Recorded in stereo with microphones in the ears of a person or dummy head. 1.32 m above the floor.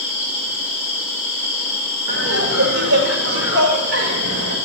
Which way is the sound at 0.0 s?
5° right (ahead or behind).